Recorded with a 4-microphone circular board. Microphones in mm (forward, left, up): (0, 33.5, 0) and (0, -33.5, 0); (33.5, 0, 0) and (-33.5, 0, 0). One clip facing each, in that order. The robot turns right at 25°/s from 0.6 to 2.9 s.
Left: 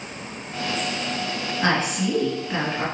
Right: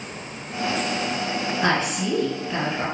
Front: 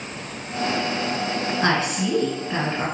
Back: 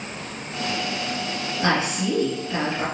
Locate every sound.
1.6 s a woman speaking: 5° right, 1.9 m; by 2.9 s 25° left, 1.9 m